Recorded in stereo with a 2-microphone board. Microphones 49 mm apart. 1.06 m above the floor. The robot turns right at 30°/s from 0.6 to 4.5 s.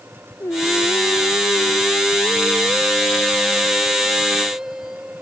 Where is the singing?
75° left; by 5.2 s 170° right.